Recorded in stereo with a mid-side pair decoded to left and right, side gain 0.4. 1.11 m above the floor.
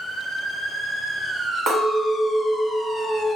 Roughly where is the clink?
Ahead right.